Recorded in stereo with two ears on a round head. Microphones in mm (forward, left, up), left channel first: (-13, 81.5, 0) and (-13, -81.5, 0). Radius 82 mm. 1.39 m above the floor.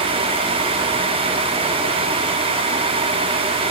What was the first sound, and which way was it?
Only background noise.